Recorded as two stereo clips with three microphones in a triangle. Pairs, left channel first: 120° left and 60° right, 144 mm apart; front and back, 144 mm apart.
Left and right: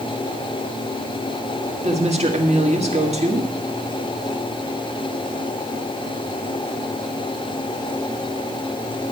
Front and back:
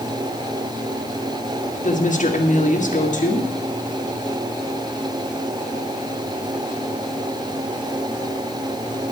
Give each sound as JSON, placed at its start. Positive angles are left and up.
{"t": 1.8, "sound": "a woman speaking", "azimuth_deg": -25, "distance_m": 1.6}